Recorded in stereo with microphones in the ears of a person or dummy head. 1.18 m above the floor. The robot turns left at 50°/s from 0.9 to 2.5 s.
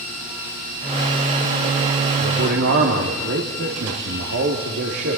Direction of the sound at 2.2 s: 75° right (ahead or behind).